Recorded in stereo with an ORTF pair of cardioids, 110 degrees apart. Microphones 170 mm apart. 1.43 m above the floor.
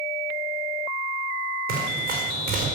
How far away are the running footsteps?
About 4.5 m.